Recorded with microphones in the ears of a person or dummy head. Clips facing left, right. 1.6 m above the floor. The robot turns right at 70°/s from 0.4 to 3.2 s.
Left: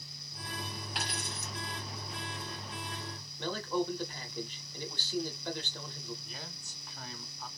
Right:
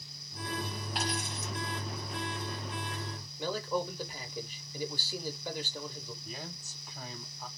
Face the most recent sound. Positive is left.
turn(degrees=-5)  # may be behind; listen again after turning